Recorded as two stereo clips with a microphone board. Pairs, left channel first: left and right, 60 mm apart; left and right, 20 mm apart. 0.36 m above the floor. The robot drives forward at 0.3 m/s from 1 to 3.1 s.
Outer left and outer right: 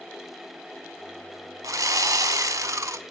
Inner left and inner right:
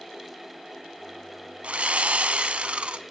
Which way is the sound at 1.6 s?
75° right (ahead or behind).